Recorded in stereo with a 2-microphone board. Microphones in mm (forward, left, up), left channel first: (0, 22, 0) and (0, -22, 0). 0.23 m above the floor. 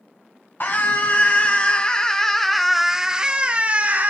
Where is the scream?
45° left (ahead or behind), 1.7 m; by 4.1 s 40° right (ahead or behind), 1.4 m.